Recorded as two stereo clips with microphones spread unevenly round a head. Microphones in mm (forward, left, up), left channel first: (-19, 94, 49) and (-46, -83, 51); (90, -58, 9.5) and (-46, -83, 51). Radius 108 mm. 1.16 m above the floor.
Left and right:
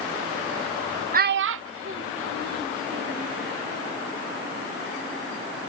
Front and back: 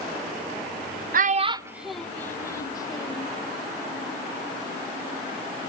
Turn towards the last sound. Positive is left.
turn(degrees=-50)